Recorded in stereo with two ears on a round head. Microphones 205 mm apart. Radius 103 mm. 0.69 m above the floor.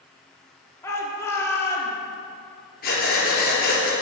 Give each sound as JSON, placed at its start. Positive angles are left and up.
{"t": 0.8, "sound": "a shout", "side_deg": 10, "distance_m": 1.6}
{"t": 2.8, "sound": "breathing", "side_deg": 45, "distance_m": 3.5}